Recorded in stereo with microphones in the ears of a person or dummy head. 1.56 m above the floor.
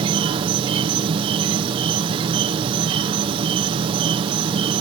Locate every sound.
0.0 s an insect: 25° right (ahead or behind)